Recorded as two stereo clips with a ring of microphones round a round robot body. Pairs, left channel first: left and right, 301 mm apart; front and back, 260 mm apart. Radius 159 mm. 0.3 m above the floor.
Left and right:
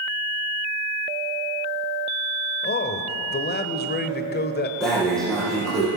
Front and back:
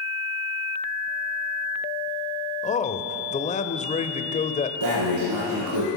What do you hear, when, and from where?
2.6 s a man speaking: 50° left, 1.1 m
4.8 s breathing: straight behind, 6 m